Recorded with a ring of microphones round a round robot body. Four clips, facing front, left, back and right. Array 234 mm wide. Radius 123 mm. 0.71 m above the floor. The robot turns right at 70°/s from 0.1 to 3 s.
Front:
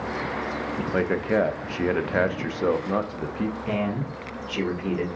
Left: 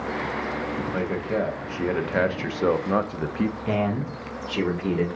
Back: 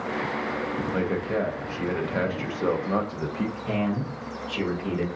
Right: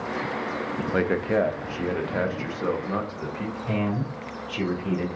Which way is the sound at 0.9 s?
55° right.